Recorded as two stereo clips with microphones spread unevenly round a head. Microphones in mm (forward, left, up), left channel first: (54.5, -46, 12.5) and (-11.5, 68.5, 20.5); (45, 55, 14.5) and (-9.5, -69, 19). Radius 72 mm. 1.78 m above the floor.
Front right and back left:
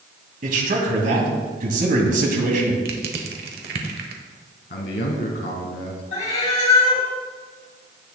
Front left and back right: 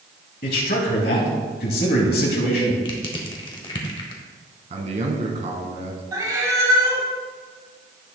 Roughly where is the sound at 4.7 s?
Right.